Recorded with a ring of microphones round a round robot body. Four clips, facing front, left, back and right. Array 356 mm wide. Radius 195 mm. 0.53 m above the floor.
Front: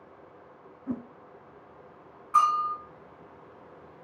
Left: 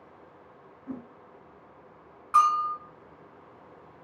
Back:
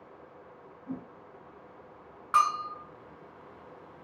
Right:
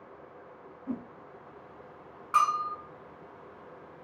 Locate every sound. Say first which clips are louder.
0.9 s a whoosh: right 3 dB, front 5 dB; 15° right, 0.5 m
2.3 s a bell: left 4 dB, front 3 dB; 175° left, 2.5 m